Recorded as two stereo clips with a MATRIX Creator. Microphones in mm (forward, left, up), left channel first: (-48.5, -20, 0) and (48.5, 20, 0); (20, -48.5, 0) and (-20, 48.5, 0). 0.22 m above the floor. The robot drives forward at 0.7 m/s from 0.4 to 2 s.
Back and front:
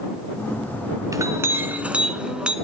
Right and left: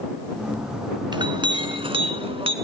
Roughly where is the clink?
Left.